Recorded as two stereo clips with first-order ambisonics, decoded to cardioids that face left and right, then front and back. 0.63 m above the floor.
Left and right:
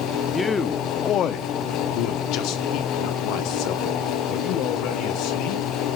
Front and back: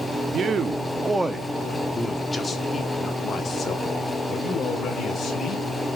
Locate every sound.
0.3 s a man speaking: 170° left, 0.8 m; by 5.7 s 65° left, 3 m